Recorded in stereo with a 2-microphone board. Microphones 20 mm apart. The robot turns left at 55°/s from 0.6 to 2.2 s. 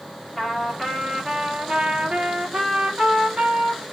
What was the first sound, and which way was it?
A trumpet, 10° left.